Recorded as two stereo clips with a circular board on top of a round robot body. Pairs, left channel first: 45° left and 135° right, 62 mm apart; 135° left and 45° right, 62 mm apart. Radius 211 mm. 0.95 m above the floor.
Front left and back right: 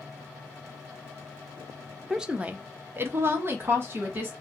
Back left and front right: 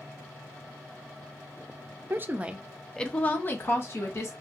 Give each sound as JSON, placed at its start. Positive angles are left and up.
{"t": 2.1, "sound": "a woman speaking", "azimuth_deg": -60, "distance_m": 0.9}